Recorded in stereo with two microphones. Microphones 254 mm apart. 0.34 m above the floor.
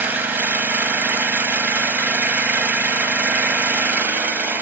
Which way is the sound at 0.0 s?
5° right (ahead or behind).